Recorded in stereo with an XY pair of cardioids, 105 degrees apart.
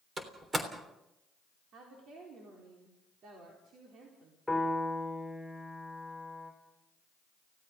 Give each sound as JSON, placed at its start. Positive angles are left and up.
{"t": 0.2, "sound": "a door slam", "azimuth_deg": -30, "distance_m": 3.5}
{"t": 1.7, "sound": "a woman speaking", "azimuth_deg": -65, "distance_m": 4.0}
{"t": 4.5, "sound": "a piano", "azimuth_deg": 5, "distance_m": 5.5}